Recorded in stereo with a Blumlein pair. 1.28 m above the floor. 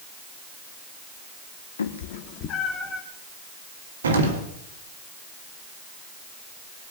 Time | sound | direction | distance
1.8 | a cat meowing | 70° left | 1.6 m
4.0 | an explosion | 70° right | 2 m